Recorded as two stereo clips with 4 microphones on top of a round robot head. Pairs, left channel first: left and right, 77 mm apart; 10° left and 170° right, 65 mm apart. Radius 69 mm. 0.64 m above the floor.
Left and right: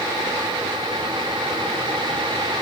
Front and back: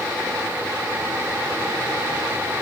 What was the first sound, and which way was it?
Only background noise.